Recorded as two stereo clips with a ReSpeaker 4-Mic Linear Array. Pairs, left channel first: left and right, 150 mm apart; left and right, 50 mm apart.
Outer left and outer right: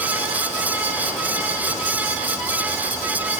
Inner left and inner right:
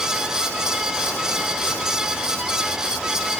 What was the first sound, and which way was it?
Only background noise.